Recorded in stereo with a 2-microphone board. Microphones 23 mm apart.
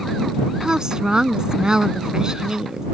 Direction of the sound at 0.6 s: 40° right (ahead or behind).